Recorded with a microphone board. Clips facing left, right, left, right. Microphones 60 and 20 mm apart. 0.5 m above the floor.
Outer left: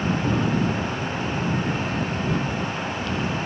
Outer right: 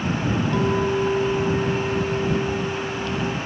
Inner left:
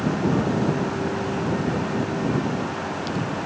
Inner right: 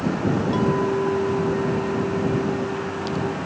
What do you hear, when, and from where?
0.5 s a clink: 80° right